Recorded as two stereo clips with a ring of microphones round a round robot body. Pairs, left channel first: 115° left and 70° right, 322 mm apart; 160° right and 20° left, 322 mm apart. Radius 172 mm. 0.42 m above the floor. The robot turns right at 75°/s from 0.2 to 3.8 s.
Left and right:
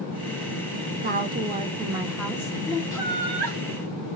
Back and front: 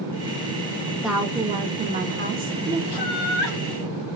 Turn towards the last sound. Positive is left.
turn(degrees=-105)